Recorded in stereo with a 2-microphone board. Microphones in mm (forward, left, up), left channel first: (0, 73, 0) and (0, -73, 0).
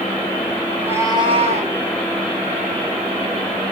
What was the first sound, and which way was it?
A cat meowing, centre (ahead or behind).